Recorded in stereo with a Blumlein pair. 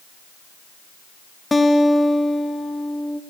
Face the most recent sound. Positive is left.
turn(degrees=10)